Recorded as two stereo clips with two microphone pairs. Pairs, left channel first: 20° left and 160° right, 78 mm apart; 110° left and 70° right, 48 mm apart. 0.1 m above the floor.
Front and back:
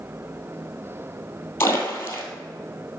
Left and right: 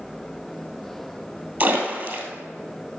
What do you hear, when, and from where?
1.6 s a splash: 35° right, 2 m